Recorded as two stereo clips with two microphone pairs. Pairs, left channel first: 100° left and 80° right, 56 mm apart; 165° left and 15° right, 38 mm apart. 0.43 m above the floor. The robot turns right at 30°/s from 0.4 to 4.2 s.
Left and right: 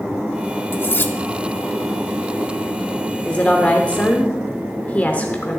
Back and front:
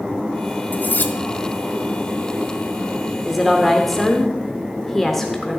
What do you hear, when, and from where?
0.7 s cutlery clinking: 140° left, 0.8 m; by 1.1 s 150° left, 0.8 m
3.2 s a woman speaking: 70° left, 1.0 m; by 5.6 s 100° left, 1.0 m